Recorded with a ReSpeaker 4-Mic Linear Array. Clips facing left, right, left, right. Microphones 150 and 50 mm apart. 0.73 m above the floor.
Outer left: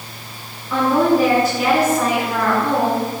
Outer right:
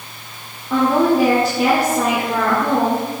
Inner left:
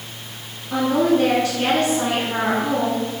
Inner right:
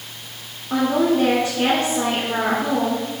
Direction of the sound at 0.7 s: 30° right (ahead or behind).